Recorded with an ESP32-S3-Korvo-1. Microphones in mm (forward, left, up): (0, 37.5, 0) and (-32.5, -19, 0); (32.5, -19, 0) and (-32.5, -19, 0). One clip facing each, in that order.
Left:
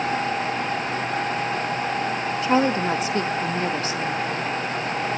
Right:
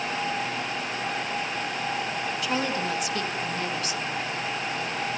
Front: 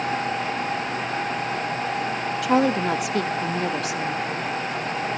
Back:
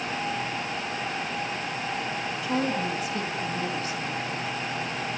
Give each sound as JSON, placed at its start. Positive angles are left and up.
{"t": 2.4, "sound": "a woman speaking", "azimuth_deg": 5, "distance_m": 1.4}